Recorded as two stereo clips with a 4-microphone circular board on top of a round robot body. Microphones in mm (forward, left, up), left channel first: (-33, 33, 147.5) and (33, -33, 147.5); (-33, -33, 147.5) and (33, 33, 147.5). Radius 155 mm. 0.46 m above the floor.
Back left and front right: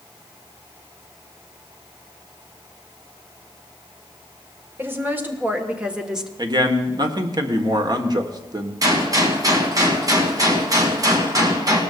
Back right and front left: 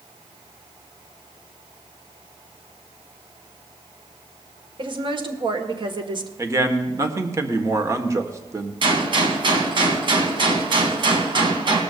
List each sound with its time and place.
4.8 s a woman speaking: 20° left, 2.0 m; by 6.3 s 40° left, 1.3 m
6.4 s a man speaking: 10° right, 1.6 m
8.8 s a gunshot: 5° left, 1.8 m